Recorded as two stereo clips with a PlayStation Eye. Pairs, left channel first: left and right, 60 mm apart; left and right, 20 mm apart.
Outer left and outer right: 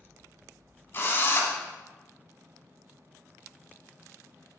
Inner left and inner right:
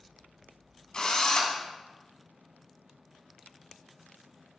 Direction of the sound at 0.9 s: 40° left (ahead or behind).